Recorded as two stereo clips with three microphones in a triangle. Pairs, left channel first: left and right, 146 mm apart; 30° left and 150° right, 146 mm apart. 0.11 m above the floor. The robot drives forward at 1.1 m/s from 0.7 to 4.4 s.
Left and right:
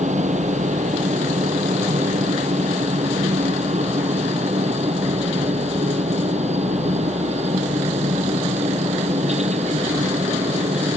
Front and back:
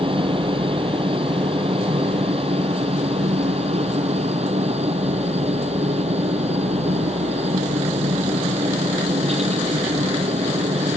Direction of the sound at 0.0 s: 105° right.